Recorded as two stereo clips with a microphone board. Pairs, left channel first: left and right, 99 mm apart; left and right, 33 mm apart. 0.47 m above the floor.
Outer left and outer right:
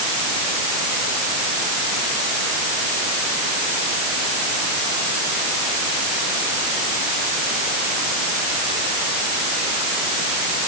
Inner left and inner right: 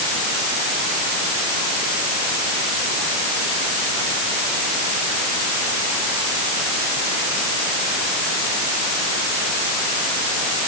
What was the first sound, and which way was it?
Only background noise.